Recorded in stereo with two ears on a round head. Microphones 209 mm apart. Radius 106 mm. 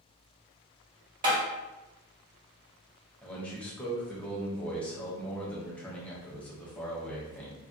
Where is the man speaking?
5° left (ahead or behind), 0.6 m.